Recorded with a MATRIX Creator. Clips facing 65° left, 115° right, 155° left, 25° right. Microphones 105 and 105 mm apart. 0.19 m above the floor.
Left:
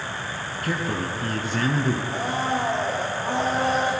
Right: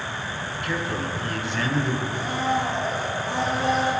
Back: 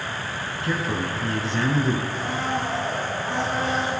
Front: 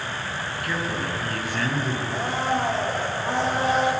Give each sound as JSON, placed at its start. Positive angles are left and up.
{"t": 0.6, "sound": "a man speaking", "azimuth_deg": 100, "distance_m": 1.9}
{"t": 2.1, "sound": "a blender", "azimuth_deg": 35, "distance_m": 4.0}